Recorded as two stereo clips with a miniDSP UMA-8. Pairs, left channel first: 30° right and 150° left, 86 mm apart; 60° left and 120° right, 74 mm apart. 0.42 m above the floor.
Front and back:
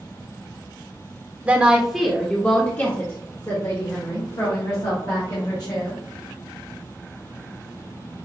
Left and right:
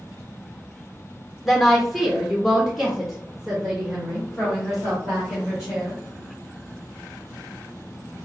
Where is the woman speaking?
155° left, 1.1 m; by 6.0 s 35° right, 2.5 m.